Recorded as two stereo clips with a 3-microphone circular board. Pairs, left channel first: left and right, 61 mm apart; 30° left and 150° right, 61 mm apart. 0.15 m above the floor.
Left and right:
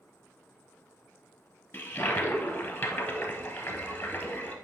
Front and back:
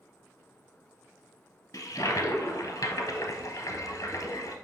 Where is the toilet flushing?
40° left, 1.1 m.